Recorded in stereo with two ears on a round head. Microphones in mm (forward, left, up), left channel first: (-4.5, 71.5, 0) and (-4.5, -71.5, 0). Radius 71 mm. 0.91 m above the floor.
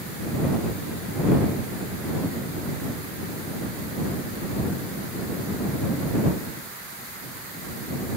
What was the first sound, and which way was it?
Only background noise.